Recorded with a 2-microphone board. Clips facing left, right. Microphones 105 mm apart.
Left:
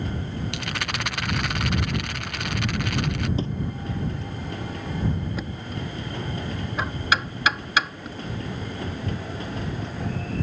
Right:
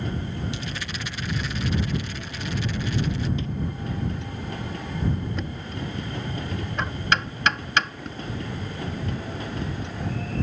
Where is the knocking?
5° left (ahead or behind).